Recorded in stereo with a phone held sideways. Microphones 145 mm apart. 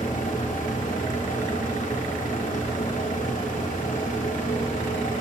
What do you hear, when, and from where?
0.0 s a fan: 60° left (ahead or behind), 1.0 m